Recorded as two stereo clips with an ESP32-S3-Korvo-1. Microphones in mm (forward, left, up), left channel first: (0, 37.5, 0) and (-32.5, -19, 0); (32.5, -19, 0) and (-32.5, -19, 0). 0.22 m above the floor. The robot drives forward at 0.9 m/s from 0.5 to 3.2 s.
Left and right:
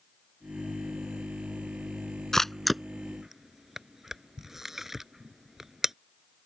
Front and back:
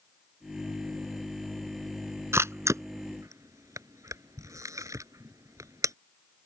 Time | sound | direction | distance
2.3 | a camera shutter | 145° left | ?